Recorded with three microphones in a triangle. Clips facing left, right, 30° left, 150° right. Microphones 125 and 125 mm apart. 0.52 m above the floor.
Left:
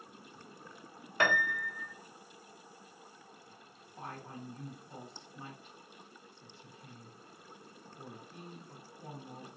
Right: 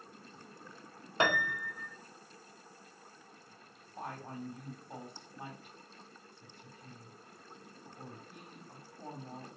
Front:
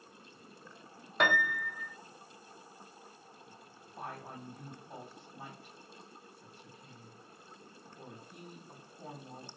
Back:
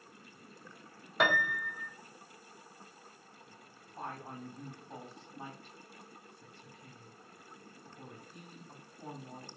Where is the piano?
65° right, 0.7 m.